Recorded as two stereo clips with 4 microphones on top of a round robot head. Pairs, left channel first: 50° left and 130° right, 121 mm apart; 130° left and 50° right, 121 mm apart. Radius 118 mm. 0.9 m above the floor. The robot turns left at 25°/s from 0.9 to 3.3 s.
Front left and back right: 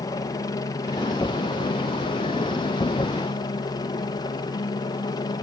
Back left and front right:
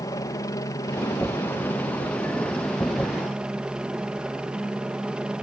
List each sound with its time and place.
0.0 s a helicopter: 85° left; by 5.4 s 25° left